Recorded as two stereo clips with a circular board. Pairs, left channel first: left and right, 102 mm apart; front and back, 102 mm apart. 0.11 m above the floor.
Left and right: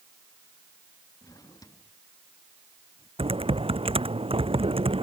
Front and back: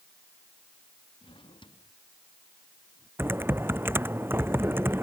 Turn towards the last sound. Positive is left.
turn(degrees=-115)